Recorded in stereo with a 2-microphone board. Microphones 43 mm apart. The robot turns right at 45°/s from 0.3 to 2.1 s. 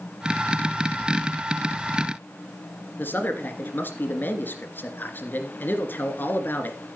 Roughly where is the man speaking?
Left.